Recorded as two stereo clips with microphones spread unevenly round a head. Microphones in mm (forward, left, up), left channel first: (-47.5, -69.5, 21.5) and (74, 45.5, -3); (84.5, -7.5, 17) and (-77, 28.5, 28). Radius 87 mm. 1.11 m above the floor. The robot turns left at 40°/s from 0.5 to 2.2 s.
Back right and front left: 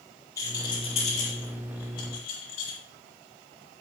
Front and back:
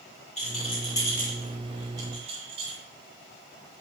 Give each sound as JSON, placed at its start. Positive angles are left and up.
{"t": 0.4, "sound": "a rattle", "azimuth_deg": -65, "distance_m": 9.0}